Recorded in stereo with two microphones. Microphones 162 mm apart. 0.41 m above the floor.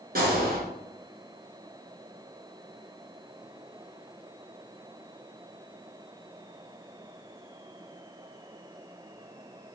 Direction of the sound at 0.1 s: 60° right (ahead or behind).